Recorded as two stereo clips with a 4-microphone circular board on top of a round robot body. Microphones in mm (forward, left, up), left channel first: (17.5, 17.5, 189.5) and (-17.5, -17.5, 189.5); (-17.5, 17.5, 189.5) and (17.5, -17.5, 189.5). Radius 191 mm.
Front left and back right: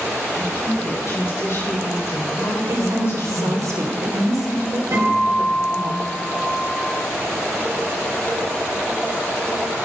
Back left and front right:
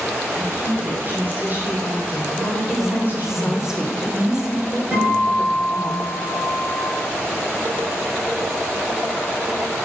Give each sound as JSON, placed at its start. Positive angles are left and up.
{"t": 0.3, "sound": "a woman speaking", "azimuth_deg": 10, "distance_m": 4.5}
{"t": 2.7, "sound": "a woman speaking", "azimuth_deg": -125, "distance_m": 3.5}
{"t": 4.9, "sound": "a guitar", "azimuth_deg": -100, "distance_m": 6.5}